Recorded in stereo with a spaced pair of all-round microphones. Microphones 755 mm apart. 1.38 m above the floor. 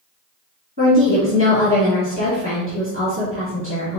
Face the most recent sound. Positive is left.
turn(degrees=-15)  # may be behind; listen again after turning